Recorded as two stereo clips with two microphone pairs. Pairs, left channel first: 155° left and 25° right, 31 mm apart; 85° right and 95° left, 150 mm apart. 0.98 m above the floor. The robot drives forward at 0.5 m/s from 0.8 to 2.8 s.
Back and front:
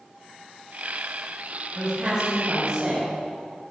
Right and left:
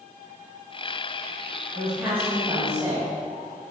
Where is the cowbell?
No cowbell in this recording.